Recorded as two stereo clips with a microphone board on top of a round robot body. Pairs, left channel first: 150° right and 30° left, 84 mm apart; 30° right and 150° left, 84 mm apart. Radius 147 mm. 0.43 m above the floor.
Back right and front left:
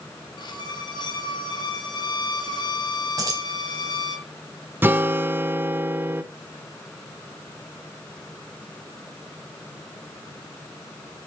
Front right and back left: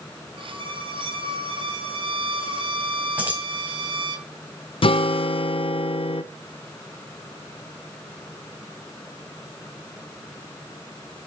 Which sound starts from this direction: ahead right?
A guitar, at 4.8 s.